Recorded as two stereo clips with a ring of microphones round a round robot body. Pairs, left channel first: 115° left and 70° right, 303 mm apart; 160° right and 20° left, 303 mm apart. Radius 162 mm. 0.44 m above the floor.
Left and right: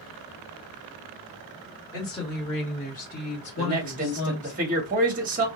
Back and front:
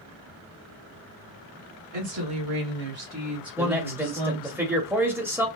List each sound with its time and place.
1.9 s a woman speaking: 35° left, 1.6 m; by 4.6 s 155° left, 1.2 m
3.6 s a man speaking: 50° right, 0.9 m